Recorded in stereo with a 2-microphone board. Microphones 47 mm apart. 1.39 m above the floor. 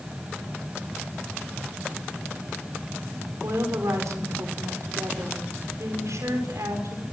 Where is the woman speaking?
80° right, 5.5 m.